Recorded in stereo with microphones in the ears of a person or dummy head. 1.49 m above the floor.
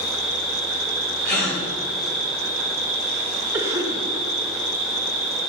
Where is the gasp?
60° left (ahead or behind), 3 m.